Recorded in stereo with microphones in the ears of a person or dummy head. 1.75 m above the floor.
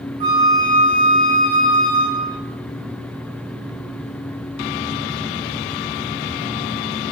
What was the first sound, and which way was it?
A flute, 25° right (ahead or behind).